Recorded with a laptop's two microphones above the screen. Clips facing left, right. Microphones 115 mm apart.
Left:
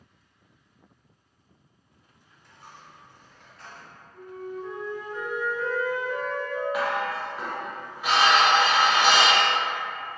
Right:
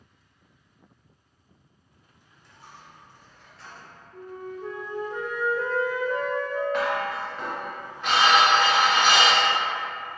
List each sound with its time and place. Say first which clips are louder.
2.4 s a dropped coin: even; 50° left (ahead or behind), 1.0 m
4.1 s a flute: left 1 dB; 55° right (ahead or behind), 0.5 m
6.7 s dishes clattering: right 1 dB; 10° left (ahead or behind), 0.5 m